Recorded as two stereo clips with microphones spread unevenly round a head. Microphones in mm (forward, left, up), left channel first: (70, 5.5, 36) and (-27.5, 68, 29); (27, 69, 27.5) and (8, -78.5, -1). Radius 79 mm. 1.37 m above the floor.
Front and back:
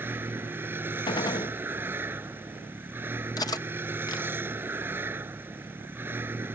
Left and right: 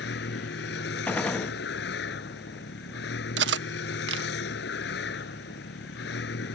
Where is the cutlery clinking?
95° right.